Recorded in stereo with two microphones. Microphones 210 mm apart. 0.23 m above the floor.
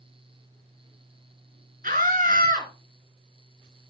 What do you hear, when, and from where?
1.8 s a scream: 40° right (ahead or behind), 3 m